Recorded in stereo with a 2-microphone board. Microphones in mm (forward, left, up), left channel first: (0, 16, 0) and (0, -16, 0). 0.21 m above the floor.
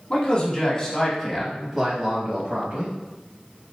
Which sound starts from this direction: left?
A man speaking, at 0.1 s.